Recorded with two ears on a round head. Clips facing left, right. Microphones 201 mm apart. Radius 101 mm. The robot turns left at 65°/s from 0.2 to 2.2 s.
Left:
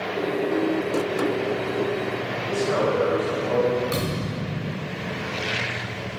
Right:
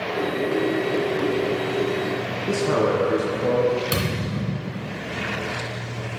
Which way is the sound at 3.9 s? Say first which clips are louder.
Right 1 dB; 45° right (ahead or behind).